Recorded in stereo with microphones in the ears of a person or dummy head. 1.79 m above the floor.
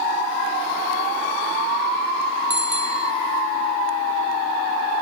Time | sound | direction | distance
2.5 | a bicycle bell | 5° right (ahead or behind) | ?